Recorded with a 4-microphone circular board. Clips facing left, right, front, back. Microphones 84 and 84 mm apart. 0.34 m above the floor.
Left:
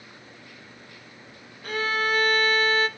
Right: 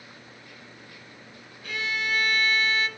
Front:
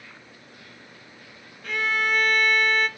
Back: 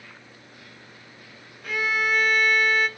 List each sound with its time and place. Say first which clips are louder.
1.6 s a violin: left 5 dB, even; 95° left, 0.6 m